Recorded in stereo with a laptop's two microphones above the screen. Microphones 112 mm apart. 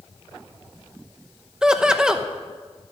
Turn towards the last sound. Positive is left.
turn(degrees=-5)  # may be behind; listen again after turning